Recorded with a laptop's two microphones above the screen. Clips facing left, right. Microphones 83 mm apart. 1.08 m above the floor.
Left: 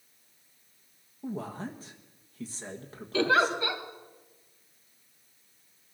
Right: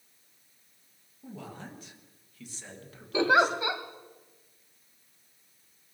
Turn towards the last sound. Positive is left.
turn(degrees=-20)  # may be behind; listen again after turning